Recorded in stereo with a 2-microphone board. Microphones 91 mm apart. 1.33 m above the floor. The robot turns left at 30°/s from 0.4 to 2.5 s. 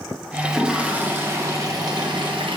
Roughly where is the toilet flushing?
Ahead.